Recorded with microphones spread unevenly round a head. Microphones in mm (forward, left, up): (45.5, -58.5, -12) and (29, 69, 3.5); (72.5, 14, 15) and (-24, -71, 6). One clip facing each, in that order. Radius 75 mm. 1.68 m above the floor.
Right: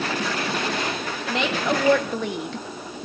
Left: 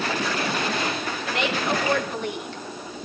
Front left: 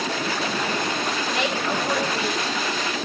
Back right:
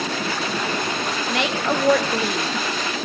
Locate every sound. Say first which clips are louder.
1.3 s a woman speaking: right 2 dB, back right 5 dB; 115° right, 4 m; by 3.0 s 125° right, 1.8 m